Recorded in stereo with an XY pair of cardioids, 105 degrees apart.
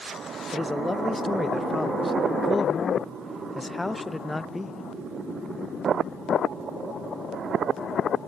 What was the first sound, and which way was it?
A man speaking, 15° left.